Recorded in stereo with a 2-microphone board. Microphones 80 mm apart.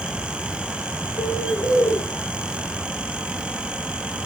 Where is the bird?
70° left (ahead or behind), 5 m.